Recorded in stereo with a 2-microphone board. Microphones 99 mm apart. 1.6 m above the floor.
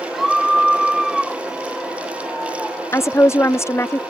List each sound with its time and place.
0.1 s a scream: centre (ahead or behind)
2.9 s a woman speaking: 25° left (ahead or behind)